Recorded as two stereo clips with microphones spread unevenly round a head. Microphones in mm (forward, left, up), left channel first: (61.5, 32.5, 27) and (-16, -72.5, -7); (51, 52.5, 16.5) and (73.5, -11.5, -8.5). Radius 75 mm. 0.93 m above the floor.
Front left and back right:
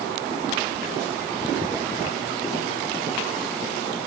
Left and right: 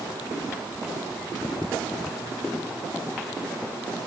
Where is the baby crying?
I don't hear a baby crying.